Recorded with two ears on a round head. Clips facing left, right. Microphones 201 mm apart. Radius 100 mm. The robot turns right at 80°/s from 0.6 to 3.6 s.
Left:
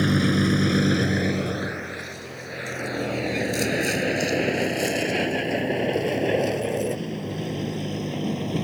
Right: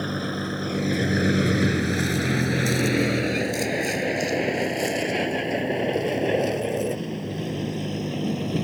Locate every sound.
0.0 s a vehicle: 35° left (ahead or behind); by 8.6 s 5° right (ahead or behind)